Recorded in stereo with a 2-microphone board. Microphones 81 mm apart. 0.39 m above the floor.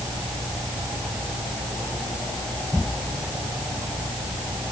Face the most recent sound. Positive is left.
No sound to turn to.